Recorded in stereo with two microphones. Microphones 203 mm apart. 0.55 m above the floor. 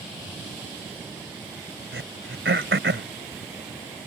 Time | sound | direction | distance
1.9 | throat clearing | 75° right (ahead or behind) | ?